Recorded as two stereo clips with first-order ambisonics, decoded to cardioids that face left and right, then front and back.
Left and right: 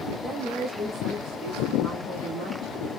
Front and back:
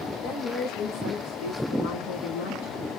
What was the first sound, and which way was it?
A woman speaking, 5° left.